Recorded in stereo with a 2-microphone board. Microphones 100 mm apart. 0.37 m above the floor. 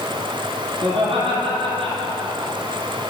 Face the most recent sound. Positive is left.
turn(degrees=-65)  # may be behind; listen again after turning